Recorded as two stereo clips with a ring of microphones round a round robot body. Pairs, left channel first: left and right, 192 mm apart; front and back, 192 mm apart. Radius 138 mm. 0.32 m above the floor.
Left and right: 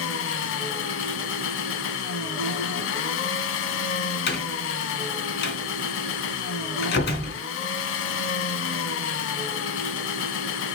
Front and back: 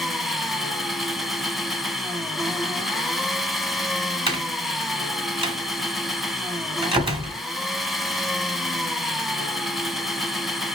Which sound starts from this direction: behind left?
A door slam, at 4.3 s.